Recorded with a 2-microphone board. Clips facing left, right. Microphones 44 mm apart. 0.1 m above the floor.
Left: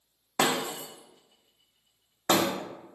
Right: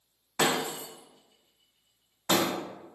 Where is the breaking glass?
55° left (ahead or behind), 0.8 m.